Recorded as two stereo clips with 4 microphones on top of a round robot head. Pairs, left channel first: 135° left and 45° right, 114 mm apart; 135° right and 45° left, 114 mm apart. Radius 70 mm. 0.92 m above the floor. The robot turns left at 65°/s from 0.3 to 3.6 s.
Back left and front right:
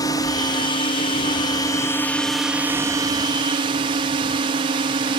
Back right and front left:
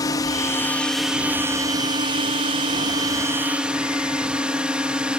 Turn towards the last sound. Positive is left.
turn(degrees=-35)